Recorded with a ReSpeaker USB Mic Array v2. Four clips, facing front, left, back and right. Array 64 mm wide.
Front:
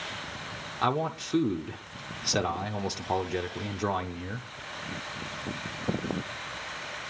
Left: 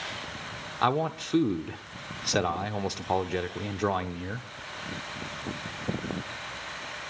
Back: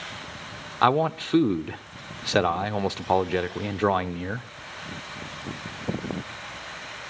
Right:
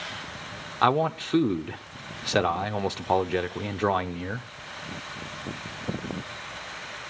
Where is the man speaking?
155° right, 0.8 m.